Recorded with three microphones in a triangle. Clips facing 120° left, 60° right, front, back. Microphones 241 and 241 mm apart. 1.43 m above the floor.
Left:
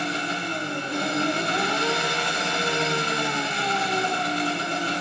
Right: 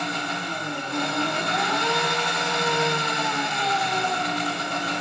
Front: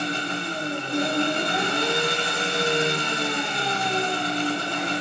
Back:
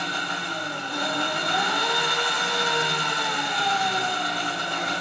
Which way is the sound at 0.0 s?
60° left.